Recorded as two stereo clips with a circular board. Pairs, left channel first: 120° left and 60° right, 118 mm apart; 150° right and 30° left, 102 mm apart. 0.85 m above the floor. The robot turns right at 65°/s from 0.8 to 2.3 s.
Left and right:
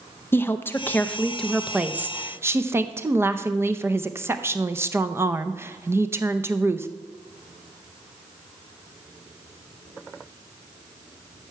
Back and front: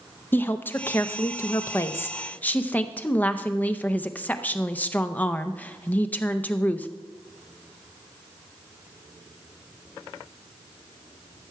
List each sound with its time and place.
0.3 s a woman speaking: 165° left, 0.6 m; by 6.9 s 95° right, 0.6 m